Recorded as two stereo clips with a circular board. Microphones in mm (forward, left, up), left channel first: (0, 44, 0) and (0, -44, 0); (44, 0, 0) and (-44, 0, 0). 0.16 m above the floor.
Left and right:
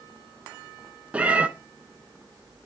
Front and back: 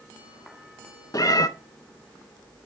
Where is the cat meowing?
20° right, 0.6 m.